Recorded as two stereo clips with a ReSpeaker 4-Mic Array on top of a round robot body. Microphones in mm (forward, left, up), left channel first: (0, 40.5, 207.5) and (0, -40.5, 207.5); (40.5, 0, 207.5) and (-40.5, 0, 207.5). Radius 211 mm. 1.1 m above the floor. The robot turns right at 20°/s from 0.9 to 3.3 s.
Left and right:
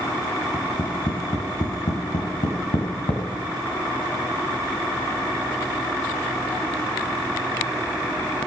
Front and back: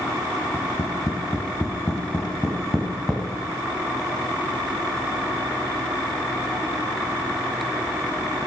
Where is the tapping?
45° left, 1.5 m; by 3.2 s 90° left, 1.5 m.